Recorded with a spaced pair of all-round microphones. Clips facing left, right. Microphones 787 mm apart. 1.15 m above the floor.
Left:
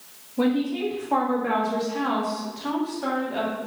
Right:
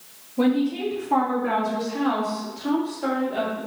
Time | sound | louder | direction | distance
0.4 | a woman speaking | right 2 dB | centre (ahead or behind) | 1.9 m